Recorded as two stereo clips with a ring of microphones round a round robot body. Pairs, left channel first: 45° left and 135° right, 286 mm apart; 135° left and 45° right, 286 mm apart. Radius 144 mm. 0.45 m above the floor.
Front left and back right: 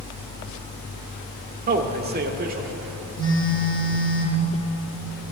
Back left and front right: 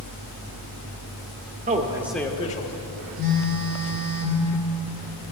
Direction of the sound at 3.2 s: 30° right.